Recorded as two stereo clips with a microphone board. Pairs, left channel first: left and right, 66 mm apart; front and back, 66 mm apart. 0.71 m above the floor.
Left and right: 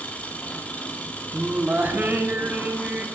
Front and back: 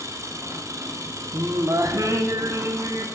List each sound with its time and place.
0.0 s an engine running: 155° left, 1.2 m
1.3 s singing: 150° right, 1.1 m